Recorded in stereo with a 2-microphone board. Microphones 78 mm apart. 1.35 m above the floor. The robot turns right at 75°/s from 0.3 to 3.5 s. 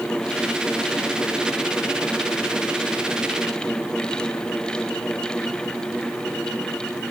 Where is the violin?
No violin in this recording.